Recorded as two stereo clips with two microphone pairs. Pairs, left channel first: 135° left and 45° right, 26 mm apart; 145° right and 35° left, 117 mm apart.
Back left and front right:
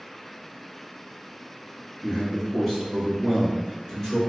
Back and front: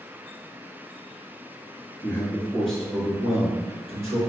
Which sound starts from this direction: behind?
A man speaking, at 2.0 s.